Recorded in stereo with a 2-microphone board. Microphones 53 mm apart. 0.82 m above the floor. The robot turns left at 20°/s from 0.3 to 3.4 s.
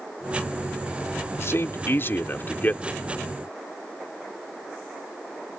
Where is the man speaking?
65° left; by 3.0 s 30° left.